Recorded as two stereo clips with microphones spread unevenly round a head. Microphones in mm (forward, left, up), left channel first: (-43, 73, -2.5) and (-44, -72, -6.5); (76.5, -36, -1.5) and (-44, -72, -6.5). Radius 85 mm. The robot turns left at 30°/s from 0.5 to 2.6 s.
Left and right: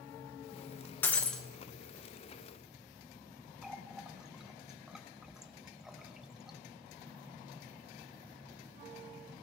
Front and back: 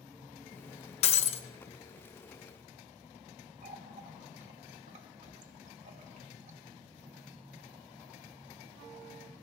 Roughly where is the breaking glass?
Ahead.